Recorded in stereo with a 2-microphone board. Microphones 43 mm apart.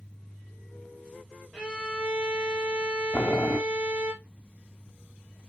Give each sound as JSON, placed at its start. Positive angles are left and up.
{"t": 1.5, "sound": "a violin", "side_deg": -20, "distance_m": 6.5}
{"t": 3.1, "sound": "boiling", "side_deg": 40, "distance_m": 0.8}